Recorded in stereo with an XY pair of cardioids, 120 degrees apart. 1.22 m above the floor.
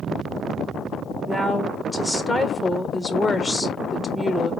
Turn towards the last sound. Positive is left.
turn(degrees=10)